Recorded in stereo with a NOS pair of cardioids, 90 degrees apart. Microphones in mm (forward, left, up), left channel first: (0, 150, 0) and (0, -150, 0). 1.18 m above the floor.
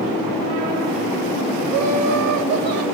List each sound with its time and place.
1.7 s laughter: 60° right, 1.3 m